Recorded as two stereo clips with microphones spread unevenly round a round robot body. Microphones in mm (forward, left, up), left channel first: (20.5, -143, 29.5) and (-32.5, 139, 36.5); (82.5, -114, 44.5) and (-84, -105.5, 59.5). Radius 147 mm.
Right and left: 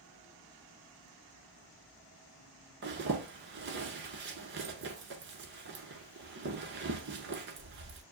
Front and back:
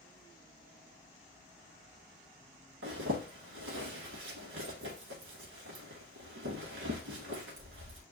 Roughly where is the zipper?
Behind left.